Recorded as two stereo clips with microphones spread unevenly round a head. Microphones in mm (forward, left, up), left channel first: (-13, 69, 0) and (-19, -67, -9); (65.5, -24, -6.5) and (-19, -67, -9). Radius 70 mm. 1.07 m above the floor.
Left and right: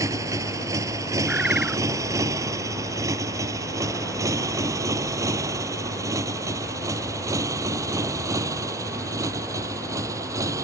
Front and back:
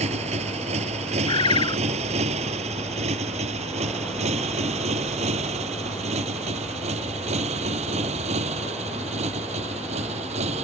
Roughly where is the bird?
Ahead.